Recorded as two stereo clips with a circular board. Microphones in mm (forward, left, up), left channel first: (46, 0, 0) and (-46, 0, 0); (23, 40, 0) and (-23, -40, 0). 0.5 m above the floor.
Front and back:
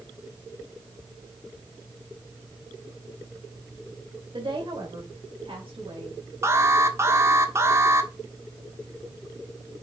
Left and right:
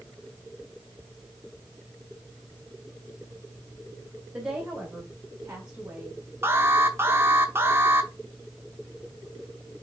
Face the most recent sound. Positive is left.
turn(degrees=-160)